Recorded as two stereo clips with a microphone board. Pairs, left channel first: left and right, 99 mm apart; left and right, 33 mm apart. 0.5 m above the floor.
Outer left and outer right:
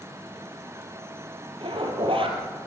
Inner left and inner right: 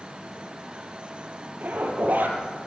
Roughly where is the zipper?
Right.